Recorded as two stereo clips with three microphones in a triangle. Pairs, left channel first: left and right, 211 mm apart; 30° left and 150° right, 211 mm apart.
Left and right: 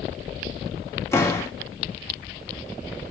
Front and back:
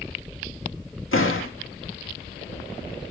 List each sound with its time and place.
1.1 s a door slam: 15° left, 1.6 m